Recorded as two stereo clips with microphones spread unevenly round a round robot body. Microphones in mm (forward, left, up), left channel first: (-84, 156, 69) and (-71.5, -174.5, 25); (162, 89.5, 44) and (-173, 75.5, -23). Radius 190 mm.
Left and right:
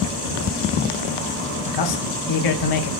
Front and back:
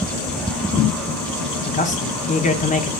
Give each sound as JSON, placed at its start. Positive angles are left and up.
{"t": 1.6, "sound": "a man speaking", "azimuth_deg": 75, "distance_m": 1.2}